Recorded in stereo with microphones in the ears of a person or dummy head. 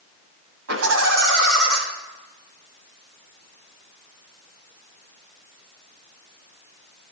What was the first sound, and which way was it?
Laughter, 85° right.